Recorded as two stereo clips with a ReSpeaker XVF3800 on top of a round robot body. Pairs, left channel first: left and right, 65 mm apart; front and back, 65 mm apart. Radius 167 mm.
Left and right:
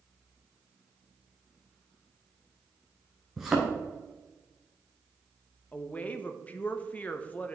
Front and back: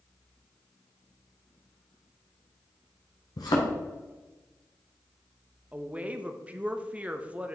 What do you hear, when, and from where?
3.4 s a thud: 5° right, 0.8 m
5.7 s a woman speaking: 130° left, 0.8 m